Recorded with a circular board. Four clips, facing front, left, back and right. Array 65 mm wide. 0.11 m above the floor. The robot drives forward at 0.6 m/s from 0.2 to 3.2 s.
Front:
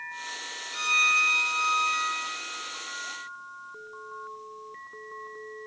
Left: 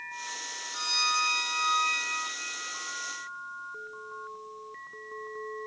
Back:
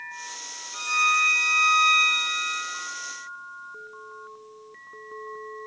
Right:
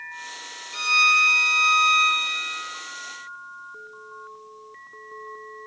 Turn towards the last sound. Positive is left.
turn(degrees=-150)